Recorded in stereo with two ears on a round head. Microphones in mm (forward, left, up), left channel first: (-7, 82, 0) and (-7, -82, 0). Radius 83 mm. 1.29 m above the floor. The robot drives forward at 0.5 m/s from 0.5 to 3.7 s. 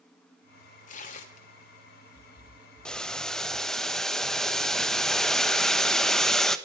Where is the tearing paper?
45° left (ahead or behind), 3 m; by 1.5 s 40° left (ahead or behind), 3 m.